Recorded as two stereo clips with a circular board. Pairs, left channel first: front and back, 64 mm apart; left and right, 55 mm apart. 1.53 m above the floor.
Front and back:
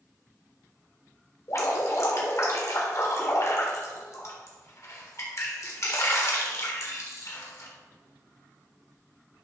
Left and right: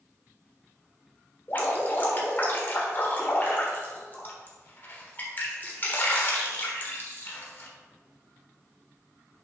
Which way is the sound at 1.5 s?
35° left.